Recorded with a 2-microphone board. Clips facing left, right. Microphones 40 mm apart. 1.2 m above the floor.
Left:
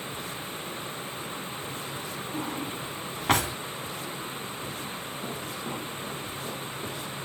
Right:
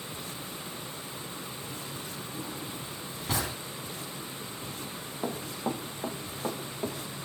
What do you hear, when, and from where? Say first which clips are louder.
2.3 s a drawer: left 7 dB; 60° left (ahead or behind), 4 m
5.2 s running footsteps: right 5 dB; 70° right (ahead or behind), 6.5 m; by 7.0 s 60° right (ahead or behind), 8.5 m